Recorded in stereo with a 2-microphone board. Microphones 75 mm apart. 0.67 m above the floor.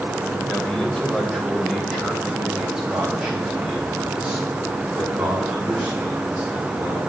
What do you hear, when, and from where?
0.5 s a man speaking: 15° left (ahead or behind), 3 m; by 7.0 s 20° right (ahead or behind), 7.5 m